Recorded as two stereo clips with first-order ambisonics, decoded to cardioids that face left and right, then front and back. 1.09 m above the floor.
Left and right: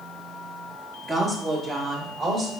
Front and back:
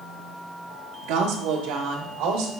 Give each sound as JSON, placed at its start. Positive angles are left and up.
{"t": 1.0, "sound": "a woman speaking", "azimuth_deg": -165, "distance_m": 1.2}